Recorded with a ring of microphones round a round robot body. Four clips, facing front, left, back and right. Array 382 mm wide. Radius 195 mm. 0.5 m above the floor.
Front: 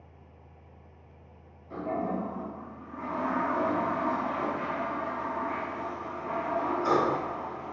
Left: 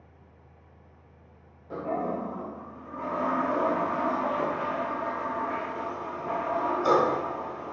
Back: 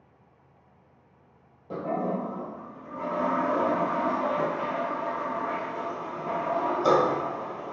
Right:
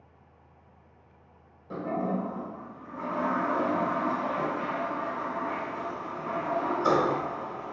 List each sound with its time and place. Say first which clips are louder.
1.7 s a toilet flushing: even, back 2 dB; 155° right, 1.8 m